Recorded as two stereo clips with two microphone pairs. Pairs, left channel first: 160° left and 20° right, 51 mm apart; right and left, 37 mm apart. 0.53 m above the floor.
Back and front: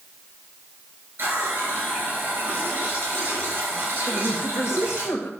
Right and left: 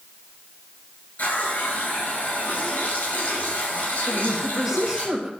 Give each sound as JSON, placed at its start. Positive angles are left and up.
{"t": 1.2, "sound": "a running tap", "azimuth_deg": -70, "distance_m": 5.5}
{"t": 4.1, "sound": "a woman speaking", "azimuth_deg": 175, "distance_m": 1.9}